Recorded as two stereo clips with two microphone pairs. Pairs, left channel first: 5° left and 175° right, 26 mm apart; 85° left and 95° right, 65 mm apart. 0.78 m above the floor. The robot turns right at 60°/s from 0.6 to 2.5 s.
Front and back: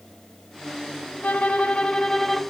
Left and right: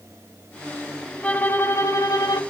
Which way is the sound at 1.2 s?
15° left.